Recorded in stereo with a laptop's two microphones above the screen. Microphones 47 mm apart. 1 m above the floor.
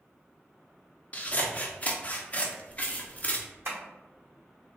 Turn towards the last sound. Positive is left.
turn(degrees=-55)  # may be behind; listen again after turning